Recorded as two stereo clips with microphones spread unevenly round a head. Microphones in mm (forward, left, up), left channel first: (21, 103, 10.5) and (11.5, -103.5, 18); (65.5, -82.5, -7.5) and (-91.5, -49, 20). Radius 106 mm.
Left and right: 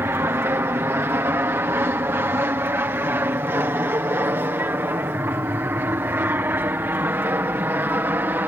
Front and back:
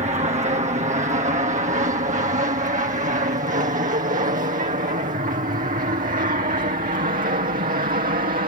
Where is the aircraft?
165° right; by 8.5 s 170° right.